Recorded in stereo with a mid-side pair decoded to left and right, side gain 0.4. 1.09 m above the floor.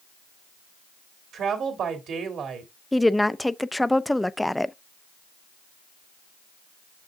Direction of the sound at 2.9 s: 10° left.